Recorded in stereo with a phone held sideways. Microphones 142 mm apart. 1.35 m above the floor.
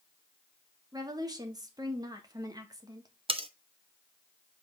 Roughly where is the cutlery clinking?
Right.